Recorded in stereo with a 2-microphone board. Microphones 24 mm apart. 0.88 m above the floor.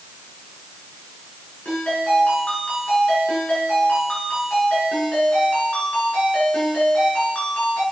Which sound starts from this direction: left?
A ringtone, at 1.6 s.